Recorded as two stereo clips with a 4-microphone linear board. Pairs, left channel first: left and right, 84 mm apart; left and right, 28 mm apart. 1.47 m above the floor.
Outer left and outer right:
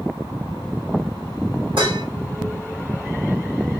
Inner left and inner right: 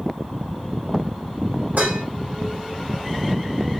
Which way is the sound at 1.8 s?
70° right (ahead or behind).